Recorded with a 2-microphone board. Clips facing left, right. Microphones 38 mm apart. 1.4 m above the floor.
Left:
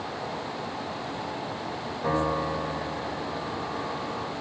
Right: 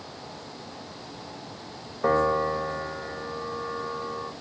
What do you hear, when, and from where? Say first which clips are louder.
2.0 s a piano: right 4 dB; 50° right (ahead or behind), 1.2 m